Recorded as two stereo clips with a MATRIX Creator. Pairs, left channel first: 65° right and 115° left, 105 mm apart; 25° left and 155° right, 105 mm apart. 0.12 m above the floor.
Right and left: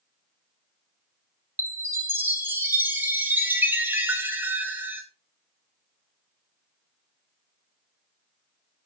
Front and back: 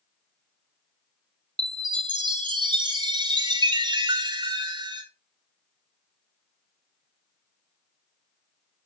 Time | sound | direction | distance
1.6 | a chime | 175° left | 1.0 m